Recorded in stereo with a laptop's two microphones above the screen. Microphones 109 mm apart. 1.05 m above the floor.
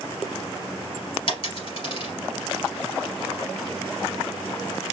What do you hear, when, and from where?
1.3 s a dropped coin: 55° left (ahead or behind), 2.5 m